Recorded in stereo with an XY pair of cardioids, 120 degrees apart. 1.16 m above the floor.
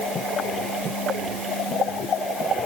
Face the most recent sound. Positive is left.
No sound to turn to.